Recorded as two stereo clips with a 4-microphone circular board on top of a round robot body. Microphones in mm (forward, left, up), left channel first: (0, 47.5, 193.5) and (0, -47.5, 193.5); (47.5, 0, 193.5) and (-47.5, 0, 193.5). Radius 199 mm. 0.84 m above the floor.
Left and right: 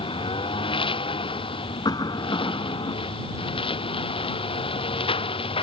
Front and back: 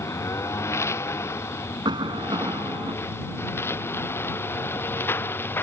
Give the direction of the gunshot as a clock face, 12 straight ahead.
No gunshot in this recording.